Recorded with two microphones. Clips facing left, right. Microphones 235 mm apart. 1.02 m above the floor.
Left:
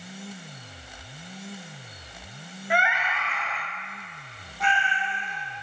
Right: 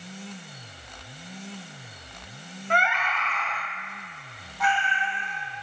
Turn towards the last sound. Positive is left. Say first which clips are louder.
# right 1 dB
turn(degrees=30)  # may be behind; listen again after turning